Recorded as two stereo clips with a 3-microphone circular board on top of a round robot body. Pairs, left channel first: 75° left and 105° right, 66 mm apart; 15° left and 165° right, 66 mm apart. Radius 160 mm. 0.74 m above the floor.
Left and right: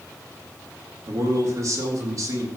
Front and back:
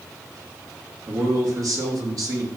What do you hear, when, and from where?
1.1 s a man speaking: 140° right, 3.5 m